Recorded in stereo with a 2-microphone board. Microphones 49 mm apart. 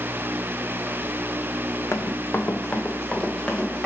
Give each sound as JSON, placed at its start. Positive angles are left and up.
{"t": 1.9, "sound": "running footsteps", "side_deg": 70, "distance_m": 0.5}